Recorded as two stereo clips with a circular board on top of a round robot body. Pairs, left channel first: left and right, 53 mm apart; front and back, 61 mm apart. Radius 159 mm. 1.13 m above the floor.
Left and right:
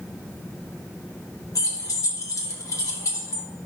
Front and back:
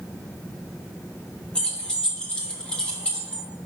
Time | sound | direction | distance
1.6 | keys jangling | 75° left | 1.0 m